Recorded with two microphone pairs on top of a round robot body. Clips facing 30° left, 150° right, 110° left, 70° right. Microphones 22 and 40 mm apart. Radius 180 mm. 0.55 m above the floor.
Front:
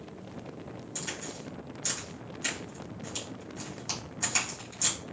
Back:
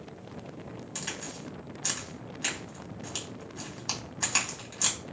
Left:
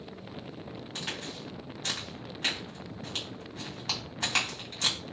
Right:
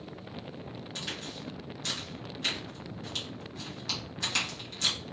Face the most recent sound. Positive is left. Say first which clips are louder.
# even, left 2 dB
turn(degrees=165)